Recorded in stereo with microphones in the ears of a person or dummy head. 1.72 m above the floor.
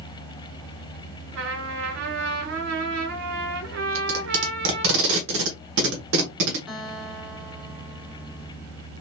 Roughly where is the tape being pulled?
Right.